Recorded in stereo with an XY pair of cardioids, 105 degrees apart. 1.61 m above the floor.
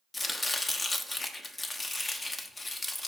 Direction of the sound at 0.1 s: 25° left.